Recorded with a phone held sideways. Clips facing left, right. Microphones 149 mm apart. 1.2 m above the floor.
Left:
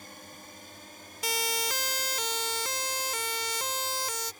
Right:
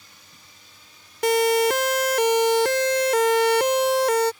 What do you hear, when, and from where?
0.0 s a drone: 50° left (ahead or behind); by 4.4 s 40° left (ahead or behind)
1.2 s a siren: 60° right (ahead or behind); by 4.3 s 75° right (ahead or behind)